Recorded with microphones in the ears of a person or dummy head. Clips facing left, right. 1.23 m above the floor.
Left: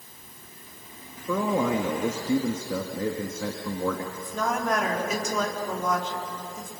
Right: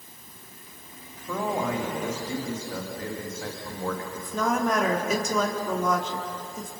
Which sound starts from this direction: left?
A man speaking, at 1.3 s.